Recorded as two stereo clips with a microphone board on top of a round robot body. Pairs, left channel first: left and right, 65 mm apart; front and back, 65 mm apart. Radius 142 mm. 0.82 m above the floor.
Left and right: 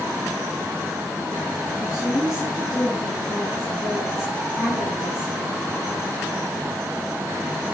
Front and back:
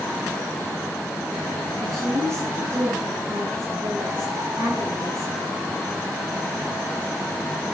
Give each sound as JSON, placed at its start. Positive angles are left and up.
{"t": 1.8, "sound": "a woman speaking", "azimuth_deg": 130, "distance_m": 6.0}